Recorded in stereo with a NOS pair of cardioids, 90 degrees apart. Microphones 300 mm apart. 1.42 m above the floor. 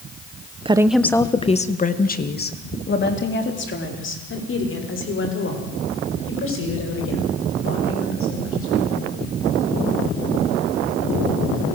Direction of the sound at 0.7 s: 20° right.